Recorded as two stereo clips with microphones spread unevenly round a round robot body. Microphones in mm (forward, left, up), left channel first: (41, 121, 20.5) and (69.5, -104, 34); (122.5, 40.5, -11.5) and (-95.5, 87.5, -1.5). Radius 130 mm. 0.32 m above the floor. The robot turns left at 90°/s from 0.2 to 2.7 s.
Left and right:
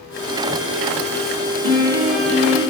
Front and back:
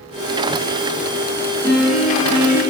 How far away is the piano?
About 1.1 m.